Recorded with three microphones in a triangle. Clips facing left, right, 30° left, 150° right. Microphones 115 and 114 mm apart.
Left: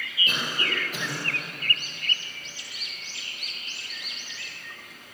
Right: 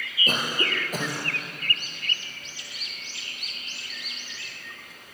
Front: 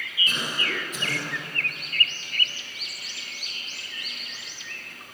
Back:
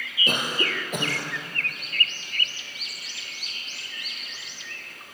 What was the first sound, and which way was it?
A cough, 130° right.